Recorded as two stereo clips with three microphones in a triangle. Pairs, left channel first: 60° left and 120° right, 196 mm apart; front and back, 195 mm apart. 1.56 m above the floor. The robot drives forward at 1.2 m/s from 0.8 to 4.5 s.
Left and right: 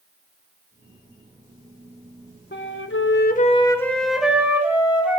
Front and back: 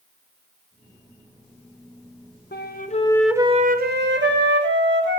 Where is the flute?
35° left, 1.1 m; by 5.2 s 160° left, 1.6 m.